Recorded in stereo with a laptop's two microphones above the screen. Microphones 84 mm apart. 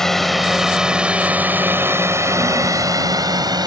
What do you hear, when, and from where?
0.0 s a drone: 5° left (ahead or behind); by 3.7 s 55° right (ahead or behind)